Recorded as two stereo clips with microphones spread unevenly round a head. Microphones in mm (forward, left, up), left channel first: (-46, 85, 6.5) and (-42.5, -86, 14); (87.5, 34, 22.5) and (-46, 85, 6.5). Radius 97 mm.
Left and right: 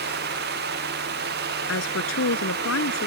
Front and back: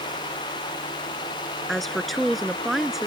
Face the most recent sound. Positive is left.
turn(degrees=70)